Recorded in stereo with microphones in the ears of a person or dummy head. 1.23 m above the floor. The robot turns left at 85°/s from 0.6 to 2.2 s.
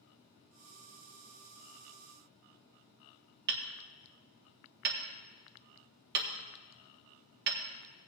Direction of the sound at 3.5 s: 50° right (ahead or behind).